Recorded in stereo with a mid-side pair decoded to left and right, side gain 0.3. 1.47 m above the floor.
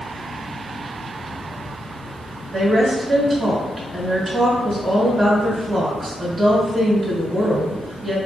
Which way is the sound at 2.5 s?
35° right.